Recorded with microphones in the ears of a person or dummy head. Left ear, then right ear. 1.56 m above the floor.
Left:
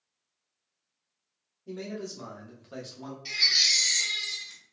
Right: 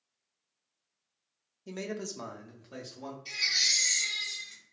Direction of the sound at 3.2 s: 50° left (ahead or behind).